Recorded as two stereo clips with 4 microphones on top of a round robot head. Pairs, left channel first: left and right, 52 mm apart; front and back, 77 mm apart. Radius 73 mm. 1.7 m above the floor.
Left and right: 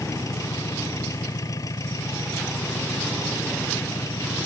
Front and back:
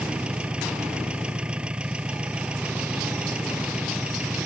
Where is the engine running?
100° left.